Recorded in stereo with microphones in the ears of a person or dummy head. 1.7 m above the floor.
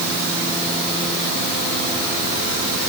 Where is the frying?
No frying in this recording.